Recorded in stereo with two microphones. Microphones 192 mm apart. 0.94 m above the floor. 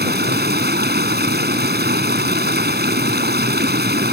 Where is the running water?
60° right (ahead or behind).